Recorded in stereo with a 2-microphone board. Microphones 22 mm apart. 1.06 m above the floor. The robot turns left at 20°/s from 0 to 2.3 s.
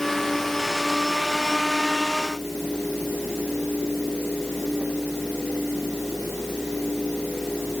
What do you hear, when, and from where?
Only background noise.